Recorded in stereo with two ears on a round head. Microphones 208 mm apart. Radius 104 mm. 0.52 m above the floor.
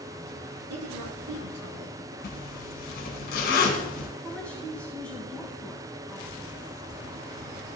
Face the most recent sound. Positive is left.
turn(degrees=5)  # may be behind; listen again after turning